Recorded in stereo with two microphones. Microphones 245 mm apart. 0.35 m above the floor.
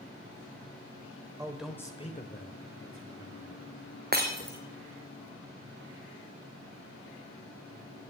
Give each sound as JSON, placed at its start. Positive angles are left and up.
{"t": 1.4, "sound": "a man speaking", "side_deg": -15, "distance_m": 1.5}
{"t": 4.1, "sound": "breaking glass", "side_deg": -35, "distance_m": 2.5}